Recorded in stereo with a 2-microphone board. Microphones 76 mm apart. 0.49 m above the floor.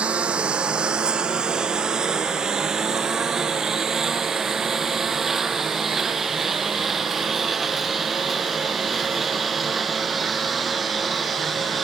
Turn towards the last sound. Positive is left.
turn(degrees=0)  # may be behind; listen again after turning